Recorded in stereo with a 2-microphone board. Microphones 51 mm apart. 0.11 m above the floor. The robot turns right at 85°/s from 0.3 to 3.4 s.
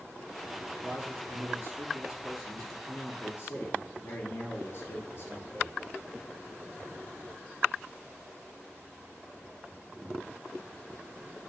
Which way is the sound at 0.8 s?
130° right.